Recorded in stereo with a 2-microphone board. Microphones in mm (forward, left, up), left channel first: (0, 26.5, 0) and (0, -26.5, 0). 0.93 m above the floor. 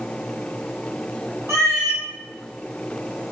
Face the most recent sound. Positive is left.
turn(degrees=-60)  # may be behind; listen again after turning